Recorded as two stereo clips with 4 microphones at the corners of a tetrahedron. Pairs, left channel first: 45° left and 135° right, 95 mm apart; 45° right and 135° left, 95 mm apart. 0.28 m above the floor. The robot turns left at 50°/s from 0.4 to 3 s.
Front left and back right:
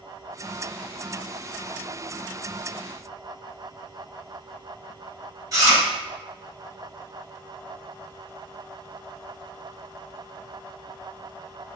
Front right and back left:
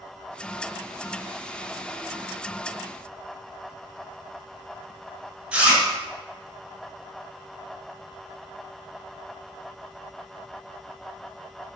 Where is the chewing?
150° right, 2.0 m.